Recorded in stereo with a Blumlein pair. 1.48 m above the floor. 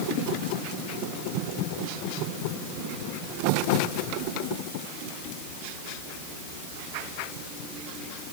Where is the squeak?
I don't hear a squeak.